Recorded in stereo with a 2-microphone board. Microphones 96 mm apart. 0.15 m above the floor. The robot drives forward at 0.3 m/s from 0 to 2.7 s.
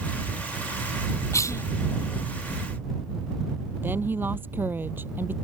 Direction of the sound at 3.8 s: 20° right (ahead or behind).